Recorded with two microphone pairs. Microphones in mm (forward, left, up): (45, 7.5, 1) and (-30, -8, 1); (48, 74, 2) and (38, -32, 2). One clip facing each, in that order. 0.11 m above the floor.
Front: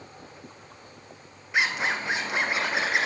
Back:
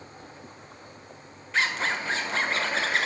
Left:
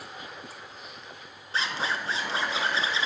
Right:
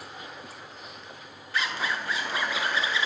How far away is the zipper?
About 1.0 m.